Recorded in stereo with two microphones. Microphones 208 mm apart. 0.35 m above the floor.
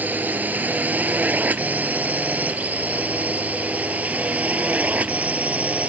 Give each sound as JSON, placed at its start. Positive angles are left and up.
{"t": 0.0, "sound": "a drone", "side_deg": -5}